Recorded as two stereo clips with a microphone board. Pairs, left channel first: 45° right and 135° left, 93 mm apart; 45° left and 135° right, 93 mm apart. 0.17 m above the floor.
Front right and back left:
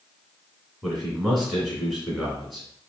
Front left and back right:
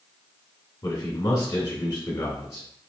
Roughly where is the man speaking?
Ahead left.